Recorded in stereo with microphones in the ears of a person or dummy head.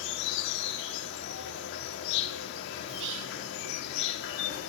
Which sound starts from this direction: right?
Whispering, at 2.9 s.